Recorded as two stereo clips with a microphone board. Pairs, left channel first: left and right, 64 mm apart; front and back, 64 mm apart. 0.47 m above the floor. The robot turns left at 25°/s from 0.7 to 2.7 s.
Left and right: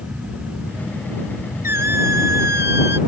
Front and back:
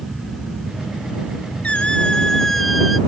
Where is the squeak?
65° right; by 3.0 s 90° right.